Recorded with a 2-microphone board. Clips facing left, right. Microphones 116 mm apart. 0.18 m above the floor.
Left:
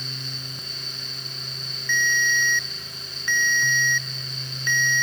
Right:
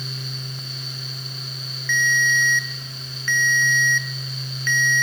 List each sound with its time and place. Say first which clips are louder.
1.9 s a ringtone: right 3 dB; 15° left (ahead or behind), 1.3 m